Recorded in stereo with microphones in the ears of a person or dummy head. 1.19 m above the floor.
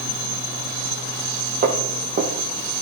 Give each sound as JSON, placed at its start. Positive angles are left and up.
{"t": 1.6, "sound": "footsteps", "side_deg": -40, "distance_m": 2.5}